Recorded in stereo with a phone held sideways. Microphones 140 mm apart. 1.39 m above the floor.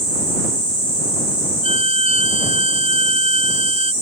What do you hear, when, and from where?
1.6 s a violin: 45° right (ahead or behind)